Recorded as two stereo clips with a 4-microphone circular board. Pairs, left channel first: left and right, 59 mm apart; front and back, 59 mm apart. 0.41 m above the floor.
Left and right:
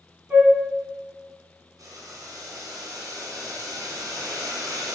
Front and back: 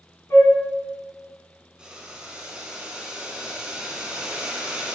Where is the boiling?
105° right, 1.5 m.